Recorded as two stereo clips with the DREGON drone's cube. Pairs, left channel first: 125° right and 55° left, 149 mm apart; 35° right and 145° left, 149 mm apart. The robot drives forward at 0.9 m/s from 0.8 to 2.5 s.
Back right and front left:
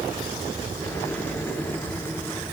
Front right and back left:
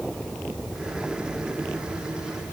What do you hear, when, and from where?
Only background noise.